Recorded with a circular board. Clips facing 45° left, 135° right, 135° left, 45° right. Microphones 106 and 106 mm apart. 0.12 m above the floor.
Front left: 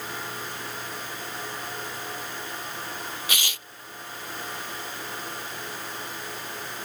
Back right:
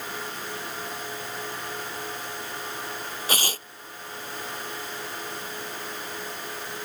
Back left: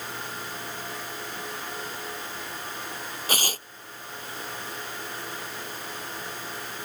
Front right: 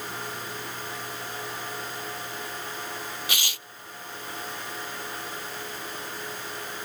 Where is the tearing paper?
Straight behind.